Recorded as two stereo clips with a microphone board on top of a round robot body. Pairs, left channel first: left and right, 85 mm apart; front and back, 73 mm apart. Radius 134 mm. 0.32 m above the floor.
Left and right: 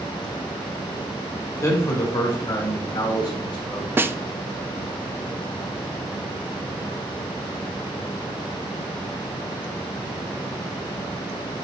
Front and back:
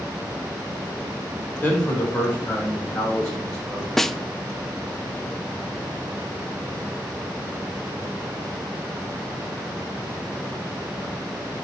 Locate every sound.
1.6 s a man speaking: 55° left, 1.7 m; by 3.9 s 80° left, 3.5 m
4.0 s a snare drum: 80° right, 0.6 m